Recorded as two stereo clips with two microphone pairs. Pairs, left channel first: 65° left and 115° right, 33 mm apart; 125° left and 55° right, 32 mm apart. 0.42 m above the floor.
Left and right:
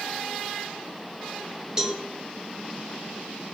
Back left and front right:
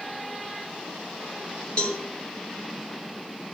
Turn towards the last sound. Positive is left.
turn(degrees=175)